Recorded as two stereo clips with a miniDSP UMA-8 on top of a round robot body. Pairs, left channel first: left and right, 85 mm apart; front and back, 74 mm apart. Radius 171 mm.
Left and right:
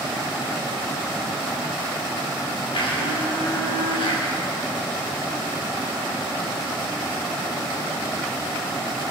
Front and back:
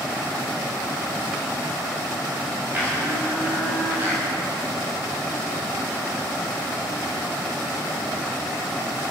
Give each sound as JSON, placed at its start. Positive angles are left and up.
{"t": 2.7, "sound": "a blender", "azimuth_deg": 115, "distance_m": 6.5}